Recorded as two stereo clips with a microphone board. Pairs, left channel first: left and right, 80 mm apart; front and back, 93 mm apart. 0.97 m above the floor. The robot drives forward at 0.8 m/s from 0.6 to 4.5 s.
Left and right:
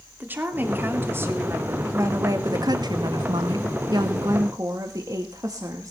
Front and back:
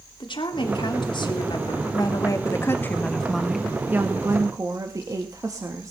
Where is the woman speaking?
25° right, 2.5 m; by 5.9 s 130° right, 1.5 m.